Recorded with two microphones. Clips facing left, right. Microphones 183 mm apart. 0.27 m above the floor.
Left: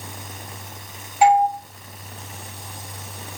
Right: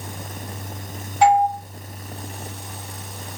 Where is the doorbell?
10° left (ahead or behind), 1.8 m.